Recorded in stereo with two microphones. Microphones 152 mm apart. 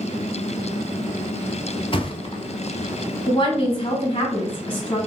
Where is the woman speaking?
35° left (ahead or behind), 1.5 m.